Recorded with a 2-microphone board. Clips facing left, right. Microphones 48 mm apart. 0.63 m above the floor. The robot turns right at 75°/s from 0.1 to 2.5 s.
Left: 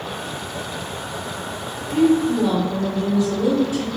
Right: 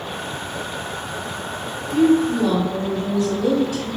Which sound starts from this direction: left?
A woman speaking, at 1.9 s.